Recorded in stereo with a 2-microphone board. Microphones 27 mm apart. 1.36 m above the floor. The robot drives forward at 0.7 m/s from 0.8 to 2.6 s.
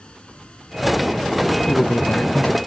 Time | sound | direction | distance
0.0 | running water | 45° left (ahead or behind) | ?
1.7 | a man speaking | 75° left (ahead or behind) | ?